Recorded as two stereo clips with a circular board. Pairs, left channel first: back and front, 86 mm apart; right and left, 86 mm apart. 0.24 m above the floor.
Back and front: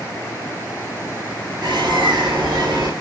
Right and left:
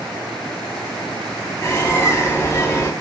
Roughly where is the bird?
Ahead right.